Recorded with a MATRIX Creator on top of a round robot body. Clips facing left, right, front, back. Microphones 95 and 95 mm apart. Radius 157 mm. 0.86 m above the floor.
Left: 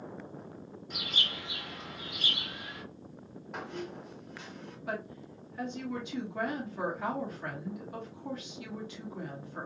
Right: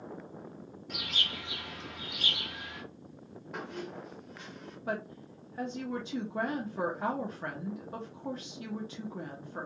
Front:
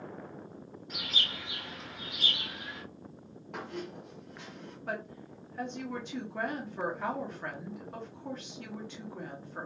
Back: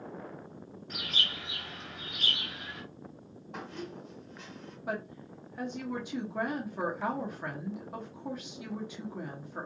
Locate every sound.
0.9 s a bird: 75° right, 1.7 m
3.5 s a squeak: straight ahead, 0.6 m
4.9 s a woman speaking: 105° right, 1.0 m